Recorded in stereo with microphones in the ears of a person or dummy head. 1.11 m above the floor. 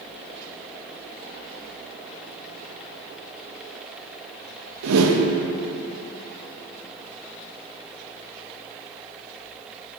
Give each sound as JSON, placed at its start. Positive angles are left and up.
{"t": 4.8, "sound": "a whoosh", "side_deg": -80, "distance_m": 0.5}